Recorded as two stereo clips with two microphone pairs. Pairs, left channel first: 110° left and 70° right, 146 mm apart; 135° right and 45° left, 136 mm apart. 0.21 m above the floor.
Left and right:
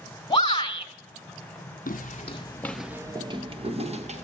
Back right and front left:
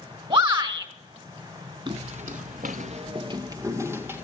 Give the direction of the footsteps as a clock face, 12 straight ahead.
9 o'clock.